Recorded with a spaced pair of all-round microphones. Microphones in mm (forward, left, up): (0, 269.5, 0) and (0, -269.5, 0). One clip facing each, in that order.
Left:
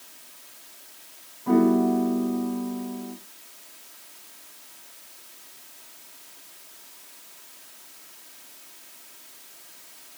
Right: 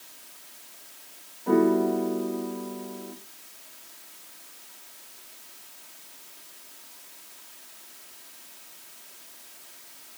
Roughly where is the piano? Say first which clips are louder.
Left 2 dB; left.